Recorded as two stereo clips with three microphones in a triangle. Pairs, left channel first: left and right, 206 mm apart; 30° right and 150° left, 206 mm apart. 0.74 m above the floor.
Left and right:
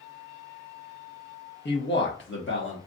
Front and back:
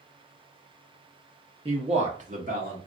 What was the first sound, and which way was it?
A man speaking, 95° left.